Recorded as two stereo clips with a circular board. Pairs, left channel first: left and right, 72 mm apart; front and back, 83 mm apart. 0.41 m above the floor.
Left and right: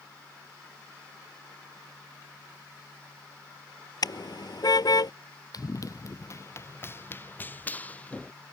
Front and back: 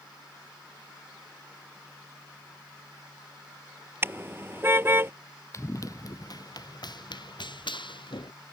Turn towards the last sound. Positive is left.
turn(degrees=15)